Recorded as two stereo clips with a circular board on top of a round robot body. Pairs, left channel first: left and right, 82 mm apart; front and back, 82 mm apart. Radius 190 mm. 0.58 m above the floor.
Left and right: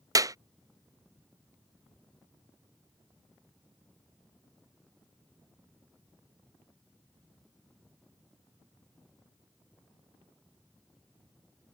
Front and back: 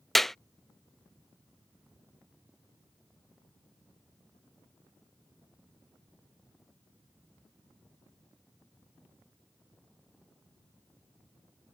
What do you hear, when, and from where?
0.1 s a clap: 85° right